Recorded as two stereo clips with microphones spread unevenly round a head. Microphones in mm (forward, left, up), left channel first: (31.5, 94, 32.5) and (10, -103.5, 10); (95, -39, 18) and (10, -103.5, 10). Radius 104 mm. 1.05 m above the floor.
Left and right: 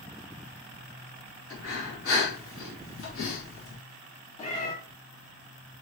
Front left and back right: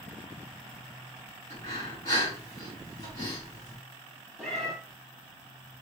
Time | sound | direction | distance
1.5 | breathing | 80° left | 2.0 m
4.4 | a cat meowing | 115° left | 1.1 m